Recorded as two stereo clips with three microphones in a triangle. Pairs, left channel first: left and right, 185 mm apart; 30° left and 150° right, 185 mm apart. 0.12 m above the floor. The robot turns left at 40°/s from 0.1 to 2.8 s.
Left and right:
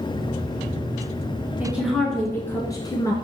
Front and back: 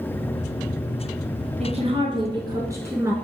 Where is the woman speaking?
165° right, 1.2 m; by 3.1 s 145° left, 1.2 m.